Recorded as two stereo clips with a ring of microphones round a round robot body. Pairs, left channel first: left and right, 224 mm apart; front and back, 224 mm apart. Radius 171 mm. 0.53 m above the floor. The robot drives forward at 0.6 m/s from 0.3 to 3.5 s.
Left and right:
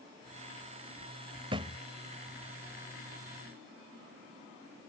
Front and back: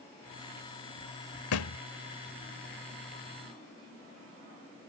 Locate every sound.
1.5 s a thud: 15° right; by 1.8 s 20° right